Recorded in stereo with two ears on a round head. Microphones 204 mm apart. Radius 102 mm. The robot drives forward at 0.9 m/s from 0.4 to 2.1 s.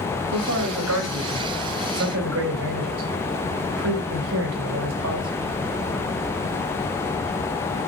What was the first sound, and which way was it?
A man speaking, 80° right.